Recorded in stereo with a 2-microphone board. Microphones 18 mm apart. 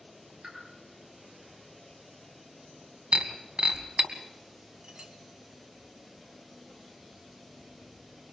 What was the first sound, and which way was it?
A pop, 75° right (ahead or behind).